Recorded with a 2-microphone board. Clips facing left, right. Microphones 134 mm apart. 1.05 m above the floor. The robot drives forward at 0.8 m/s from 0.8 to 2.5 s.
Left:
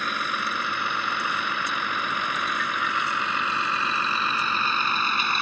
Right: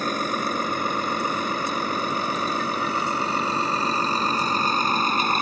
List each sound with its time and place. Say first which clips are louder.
0.0 s a vehicle: right 5 dB; 40° right (ahead or behind)